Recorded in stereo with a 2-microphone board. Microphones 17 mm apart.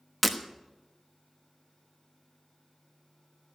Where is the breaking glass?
5° right (ahead or behind), 1.1 m.